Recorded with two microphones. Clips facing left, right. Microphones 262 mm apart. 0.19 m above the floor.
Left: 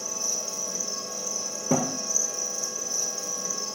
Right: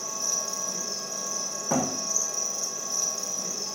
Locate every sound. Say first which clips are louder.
0.0 s an insect: left 1 dB; 5° left (ahead or behind), 0.9 m
1.7 s a thud: left 2 dB; 35° left (ahead or behind), 1.4 m